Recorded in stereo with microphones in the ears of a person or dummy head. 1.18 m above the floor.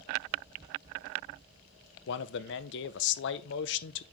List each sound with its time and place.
2.1 s a man speaking: 60° left (ahead or behind), 0.8 m